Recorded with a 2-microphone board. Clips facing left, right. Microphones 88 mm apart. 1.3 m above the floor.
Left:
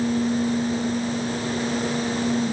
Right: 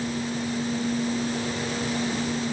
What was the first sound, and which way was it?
Only background noise.